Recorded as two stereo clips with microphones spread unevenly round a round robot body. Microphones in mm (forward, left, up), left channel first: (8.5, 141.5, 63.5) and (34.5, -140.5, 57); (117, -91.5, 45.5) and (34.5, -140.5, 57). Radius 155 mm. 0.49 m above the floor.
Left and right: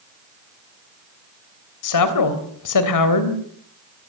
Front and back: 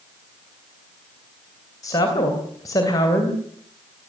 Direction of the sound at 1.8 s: 90° left.